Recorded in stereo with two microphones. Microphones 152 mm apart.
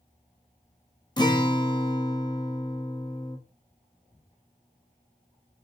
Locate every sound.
1.2 s a guitar: 30° left (ahead or behind), 0.7 m